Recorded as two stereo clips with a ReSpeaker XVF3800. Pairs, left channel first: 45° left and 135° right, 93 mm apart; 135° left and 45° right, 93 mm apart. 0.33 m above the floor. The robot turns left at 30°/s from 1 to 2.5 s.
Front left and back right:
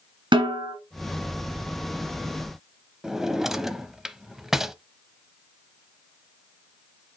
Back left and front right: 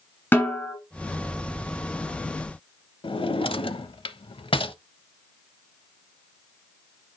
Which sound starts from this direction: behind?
A snare drum, at 0.3 s.